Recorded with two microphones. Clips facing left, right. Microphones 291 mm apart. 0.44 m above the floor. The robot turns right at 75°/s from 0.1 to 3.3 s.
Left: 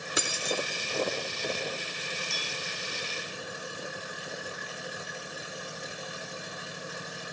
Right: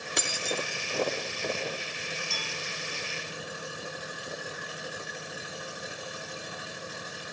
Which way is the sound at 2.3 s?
35° right (ahead or behind).